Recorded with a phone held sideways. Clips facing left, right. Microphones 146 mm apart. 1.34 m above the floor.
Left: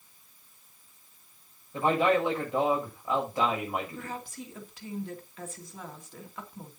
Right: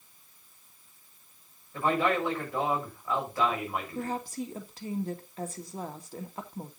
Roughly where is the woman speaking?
Right.